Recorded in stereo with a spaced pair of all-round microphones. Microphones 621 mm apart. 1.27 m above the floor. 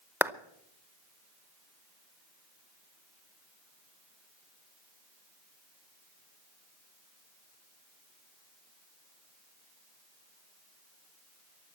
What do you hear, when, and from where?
0.2 s a clap: 5° right (ahead or behind), 0.6 m